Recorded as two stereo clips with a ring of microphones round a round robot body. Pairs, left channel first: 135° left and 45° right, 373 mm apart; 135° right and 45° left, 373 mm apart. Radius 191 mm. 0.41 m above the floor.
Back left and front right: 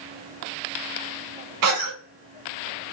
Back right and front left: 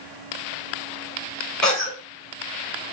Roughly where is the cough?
Ahead right.